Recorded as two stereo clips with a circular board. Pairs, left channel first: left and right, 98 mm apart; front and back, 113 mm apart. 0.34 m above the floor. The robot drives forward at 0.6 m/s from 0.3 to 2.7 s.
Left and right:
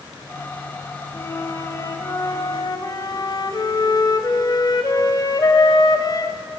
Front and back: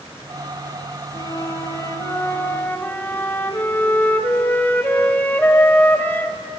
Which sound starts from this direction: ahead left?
A flute, at 1.1 s.